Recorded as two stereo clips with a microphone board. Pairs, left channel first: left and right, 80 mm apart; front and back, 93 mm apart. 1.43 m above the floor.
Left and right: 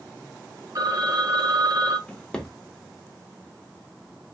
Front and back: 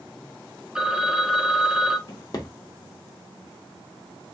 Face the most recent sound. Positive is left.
turn(degrees=15)